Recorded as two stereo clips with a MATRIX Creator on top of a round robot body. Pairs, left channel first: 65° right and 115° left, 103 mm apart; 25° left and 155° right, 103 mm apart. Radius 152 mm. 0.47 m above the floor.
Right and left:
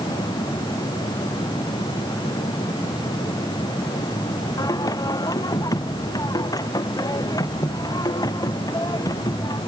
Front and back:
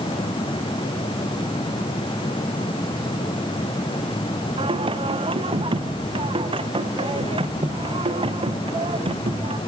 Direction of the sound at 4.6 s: 125° right.